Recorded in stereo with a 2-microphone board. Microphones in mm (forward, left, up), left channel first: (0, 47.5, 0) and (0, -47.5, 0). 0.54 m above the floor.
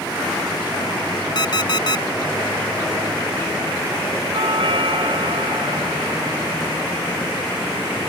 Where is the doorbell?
70° right (ahead or behind).